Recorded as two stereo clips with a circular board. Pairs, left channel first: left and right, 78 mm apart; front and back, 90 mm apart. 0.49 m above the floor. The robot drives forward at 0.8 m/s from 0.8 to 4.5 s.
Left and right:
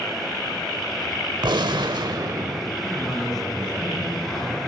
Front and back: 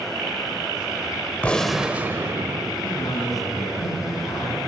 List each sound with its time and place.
1.4 s a gunshot: 75° right, 0.8 m; by 2.7 s 140° right, 1.1 m
2.8 s a man speaking: straight ahead, 5 m